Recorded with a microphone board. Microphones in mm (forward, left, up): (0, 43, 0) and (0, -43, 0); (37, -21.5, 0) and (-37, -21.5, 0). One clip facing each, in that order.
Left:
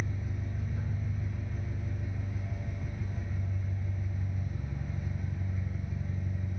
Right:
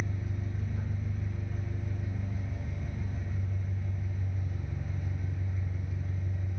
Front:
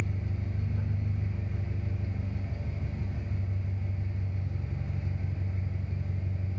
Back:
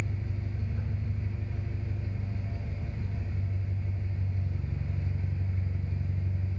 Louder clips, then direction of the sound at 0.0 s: Right 1 dB, front 1 dB; 10° left.